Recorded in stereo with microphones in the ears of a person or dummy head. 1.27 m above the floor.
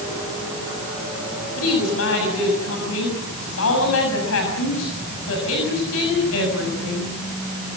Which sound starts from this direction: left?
A woman speaking, at 1.6 s.